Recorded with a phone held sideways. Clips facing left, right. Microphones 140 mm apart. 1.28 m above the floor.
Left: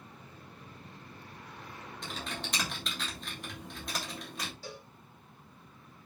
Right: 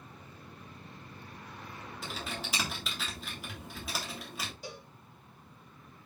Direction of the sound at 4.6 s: 15° right (ahead or behind).